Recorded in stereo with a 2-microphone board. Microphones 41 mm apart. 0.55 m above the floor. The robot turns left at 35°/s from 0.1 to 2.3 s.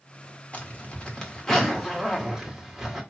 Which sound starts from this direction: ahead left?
A zipper, at 0.5 s.